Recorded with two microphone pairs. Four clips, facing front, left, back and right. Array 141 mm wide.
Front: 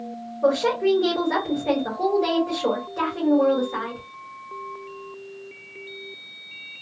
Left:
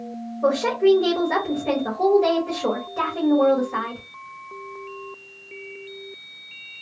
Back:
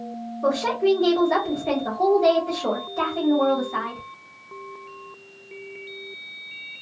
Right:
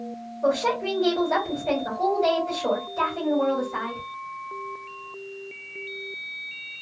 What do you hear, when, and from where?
0.4 s a woman speaking: 65° left, 1.8 m